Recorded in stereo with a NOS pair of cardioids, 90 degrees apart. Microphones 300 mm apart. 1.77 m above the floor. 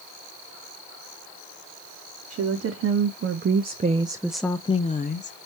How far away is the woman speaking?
About 1.3 m.